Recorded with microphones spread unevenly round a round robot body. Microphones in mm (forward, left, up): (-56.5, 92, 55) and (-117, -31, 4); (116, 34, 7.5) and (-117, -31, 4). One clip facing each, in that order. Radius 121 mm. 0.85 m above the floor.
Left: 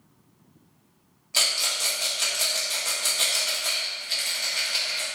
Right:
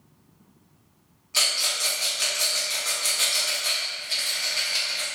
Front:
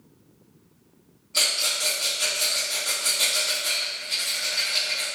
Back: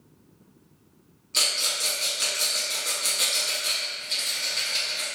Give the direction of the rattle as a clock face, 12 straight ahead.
8 o'clock.